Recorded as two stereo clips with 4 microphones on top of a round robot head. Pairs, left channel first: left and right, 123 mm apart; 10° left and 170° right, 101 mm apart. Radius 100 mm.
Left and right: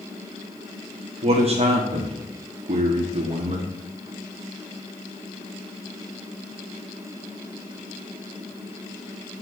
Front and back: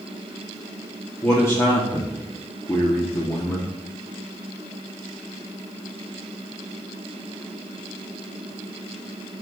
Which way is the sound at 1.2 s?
55° right.